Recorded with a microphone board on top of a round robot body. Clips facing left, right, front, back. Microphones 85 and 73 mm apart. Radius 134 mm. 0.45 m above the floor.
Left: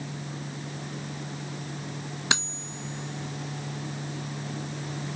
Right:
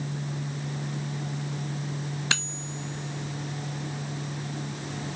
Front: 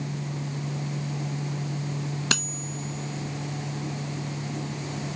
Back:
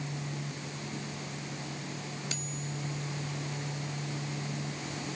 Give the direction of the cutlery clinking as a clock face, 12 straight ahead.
11 o'clock.